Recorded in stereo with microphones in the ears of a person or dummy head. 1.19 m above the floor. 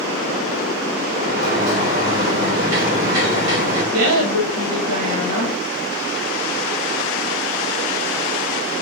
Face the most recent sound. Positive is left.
turn(degrees=-75)  # may be behind; listen again after turning